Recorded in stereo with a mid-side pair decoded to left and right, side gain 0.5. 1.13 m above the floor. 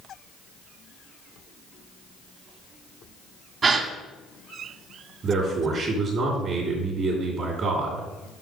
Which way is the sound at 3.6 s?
45° right.